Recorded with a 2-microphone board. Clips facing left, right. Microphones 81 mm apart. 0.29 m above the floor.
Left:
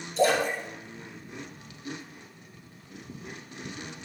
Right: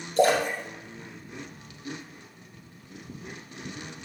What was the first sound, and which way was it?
A splash, 55° right (ahead or behind).